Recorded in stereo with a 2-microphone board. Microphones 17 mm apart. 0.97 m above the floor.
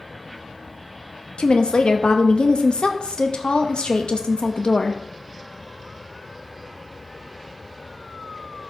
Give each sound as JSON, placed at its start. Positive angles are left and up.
{"t": 1.4, "sound": "a woman speaking", "side_deg": 70, "distance_m": 0.9}